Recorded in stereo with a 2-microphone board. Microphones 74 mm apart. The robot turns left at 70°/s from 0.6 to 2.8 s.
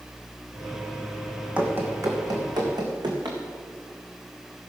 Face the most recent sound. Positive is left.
turn(degrees=-75)  # may be behind; listen again after turning